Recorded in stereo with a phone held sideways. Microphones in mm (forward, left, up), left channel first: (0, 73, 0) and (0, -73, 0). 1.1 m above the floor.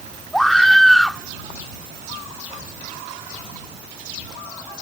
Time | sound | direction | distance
0.3 | a scream | centre (ahead or behind) | ?